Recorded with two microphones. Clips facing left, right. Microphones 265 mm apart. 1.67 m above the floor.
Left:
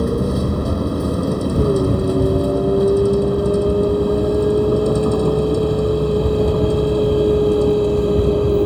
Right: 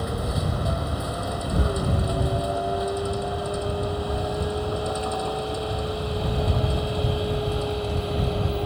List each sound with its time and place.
0.0 s a vehicle: 50° left (ahead or behind); by 8.7 s 55° left (ahead or behind)